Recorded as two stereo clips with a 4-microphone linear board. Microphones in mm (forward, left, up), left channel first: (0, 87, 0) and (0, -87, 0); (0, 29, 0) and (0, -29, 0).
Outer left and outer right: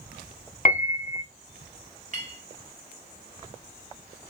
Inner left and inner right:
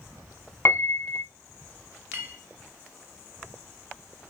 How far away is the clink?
About 1.7 m.